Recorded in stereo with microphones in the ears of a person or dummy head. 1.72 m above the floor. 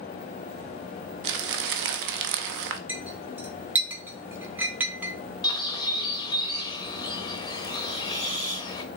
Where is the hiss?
40° right (ahead or behind), 1.0 m.